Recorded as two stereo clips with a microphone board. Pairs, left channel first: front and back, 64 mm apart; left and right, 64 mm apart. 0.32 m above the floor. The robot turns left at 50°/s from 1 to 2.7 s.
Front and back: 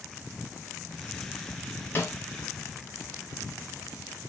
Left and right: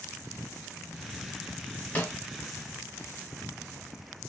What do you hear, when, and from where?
1.9 s a snare drum: 35° left, 1.0 m; by 2.1 s 30° left, 1.0 m